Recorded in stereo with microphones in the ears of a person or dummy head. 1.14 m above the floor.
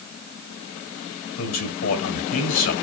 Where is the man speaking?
80° left, 2.5 m.